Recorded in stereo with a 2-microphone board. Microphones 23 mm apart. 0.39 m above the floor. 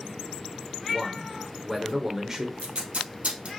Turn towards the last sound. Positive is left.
turn(degrees=-85)